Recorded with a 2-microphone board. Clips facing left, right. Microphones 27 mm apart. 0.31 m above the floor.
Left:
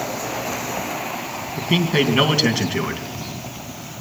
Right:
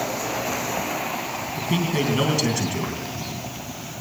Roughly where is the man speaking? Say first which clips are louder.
Left 5 dB; left.